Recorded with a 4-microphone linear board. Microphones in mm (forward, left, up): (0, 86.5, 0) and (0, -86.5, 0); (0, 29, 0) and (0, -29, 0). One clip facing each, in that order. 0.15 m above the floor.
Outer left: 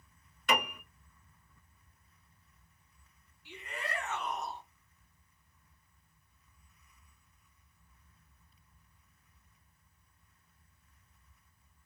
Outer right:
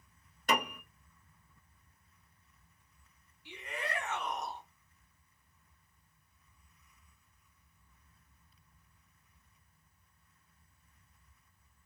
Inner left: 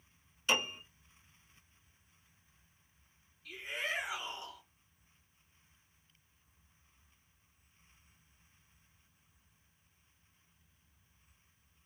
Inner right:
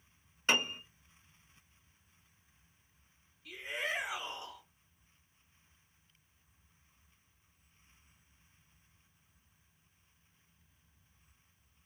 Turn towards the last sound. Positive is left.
turn(degrees=-5)  # may be behind; listen again after turning